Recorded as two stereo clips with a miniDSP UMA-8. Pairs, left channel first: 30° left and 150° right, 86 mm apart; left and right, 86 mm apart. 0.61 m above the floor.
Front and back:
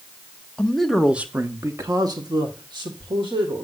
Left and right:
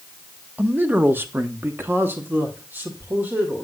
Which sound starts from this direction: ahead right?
A man speaking, at 0.6 s.